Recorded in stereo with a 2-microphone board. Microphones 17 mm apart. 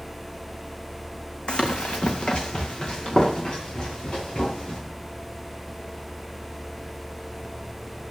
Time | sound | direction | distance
1.5 | running footsteps | 70° left (ahead or behind) | 0.9 m